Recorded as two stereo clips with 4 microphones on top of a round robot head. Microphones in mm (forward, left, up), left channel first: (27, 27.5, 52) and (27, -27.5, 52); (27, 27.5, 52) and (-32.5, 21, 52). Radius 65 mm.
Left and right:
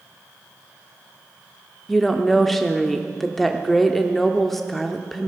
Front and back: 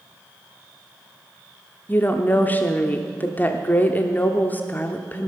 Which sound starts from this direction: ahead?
A woman speaking, at 1.9 s.